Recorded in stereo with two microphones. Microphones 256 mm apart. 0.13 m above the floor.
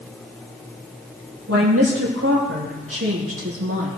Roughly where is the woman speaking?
Right.